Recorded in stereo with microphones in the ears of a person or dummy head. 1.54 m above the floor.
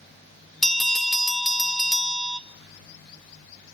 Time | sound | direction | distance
0.6 | a bell | 5° left (ahead or behind) | 0.6 m